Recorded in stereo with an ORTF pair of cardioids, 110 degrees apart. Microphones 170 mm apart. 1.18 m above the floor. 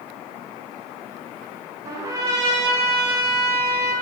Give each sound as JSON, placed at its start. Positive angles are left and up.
{"t": 1.9, "sound": "a trumpet", "azimuth_deg": -20, "distance_m": 0.9}